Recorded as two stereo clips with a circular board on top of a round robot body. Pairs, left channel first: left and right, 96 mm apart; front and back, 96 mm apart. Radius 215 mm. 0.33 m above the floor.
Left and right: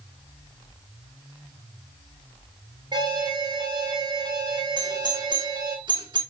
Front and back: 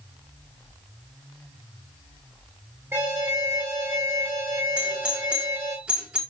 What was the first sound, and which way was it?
An alarm, 125° right.